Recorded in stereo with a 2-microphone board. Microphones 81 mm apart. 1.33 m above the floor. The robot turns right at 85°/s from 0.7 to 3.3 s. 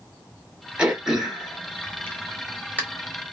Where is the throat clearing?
15° right (ahead or behind), 0.8 m; by 2.8 s 15° left (ahead or behind), 0.8 m.